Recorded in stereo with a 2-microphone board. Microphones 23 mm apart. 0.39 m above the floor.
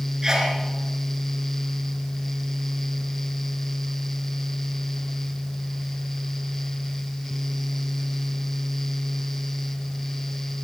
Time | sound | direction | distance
0.2 | a sneeze | 25° right (ahead or behind) | 4.5 m